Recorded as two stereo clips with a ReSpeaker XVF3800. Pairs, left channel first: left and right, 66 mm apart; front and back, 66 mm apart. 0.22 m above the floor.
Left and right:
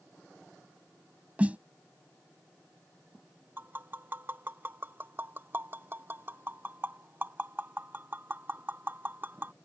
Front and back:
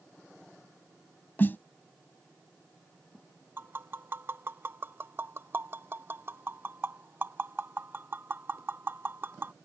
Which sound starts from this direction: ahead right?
A snare drum, at 1.4 s.